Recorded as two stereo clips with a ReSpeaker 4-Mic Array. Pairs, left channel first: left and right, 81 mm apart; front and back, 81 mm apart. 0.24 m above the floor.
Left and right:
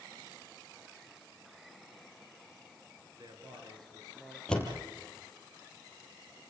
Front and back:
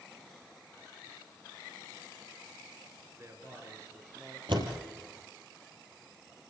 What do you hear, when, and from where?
3.2 s a man speaking: 120° right, 5 m; by 4.4 s 130° right, 5.5 m
4.5 s a door slam: 170° left, 4.5 m